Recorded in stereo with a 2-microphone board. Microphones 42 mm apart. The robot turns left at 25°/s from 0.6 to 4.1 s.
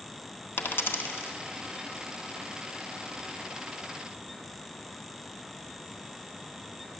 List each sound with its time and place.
0.6 s a dropped coin: 55° left (ahead or behind), 1.0 m; by 1.3 s 70° left (ahead or behind), 1.0 m